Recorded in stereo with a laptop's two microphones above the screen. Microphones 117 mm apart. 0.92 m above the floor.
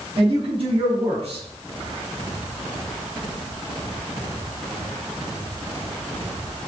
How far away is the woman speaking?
About 5 m.